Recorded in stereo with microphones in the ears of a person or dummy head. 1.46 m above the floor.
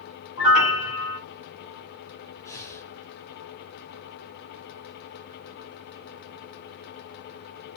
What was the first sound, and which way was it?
A piano, 60° left (ahead or behind).